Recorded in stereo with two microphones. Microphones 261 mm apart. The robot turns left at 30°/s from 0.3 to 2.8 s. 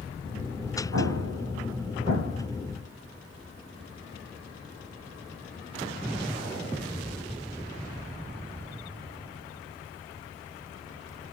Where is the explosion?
70° right (ahead or behind), 4.5 m; by 2.5 s 30° right (ahead or behind), 4.5 m.